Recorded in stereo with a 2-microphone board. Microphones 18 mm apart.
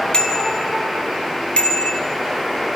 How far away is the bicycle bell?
About 3 m.